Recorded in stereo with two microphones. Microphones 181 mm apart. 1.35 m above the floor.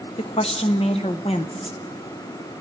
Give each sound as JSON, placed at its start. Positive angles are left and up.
{"t": 0.2, "sound": "a woman speaking", "side_deg": 35, "distance_m": 0.8}